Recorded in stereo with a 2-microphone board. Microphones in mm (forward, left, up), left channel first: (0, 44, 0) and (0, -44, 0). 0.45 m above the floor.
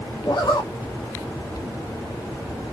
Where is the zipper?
55° left (ahead or behind), 0.8 m.